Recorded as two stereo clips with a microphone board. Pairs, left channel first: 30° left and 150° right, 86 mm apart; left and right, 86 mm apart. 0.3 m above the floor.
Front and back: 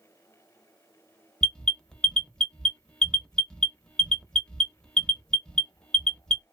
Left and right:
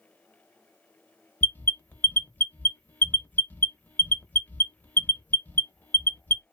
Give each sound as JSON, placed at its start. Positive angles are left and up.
{"t": 1.4, "sound": "an alarm", "azimuth_deg": 95, "distance_m": 0.6}